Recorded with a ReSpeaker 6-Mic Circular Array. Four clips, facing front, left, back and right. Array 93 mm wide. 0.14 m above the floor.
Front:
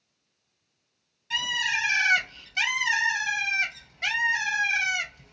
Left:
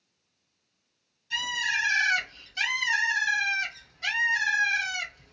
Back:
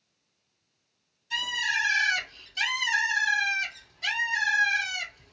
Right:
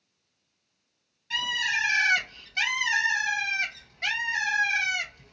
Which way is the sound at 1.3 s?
45° right.